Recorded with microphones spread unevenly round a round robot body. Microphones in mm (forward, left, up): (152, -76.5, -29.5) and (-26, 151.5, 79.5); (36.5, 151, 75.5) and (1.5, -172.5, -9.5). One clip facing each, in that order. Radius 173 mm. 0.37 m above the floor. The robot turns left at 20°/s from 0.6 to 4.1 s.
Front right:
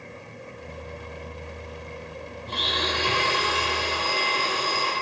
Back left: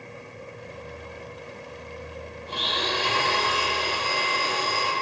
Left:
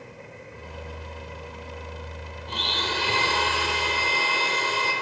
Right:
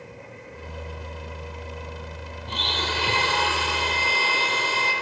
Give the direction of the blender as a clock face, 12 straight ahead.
4 o'clock.